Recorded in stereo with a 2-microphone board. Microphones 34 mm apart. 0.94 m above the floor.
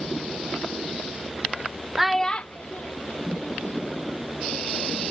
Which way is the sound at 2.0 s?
15° right (ahead or behind).